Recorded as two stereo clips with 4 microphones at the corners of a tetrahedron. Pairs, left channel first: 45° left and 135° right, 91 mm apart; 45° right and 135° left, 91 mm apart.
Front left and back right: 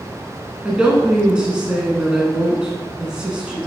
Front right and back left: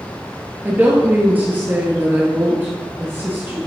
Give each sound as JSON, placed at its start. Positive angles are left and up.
{"t": 0.7, "sound": "a woman speaking", "azimuth_deg": 160, "distance_m": 1.2}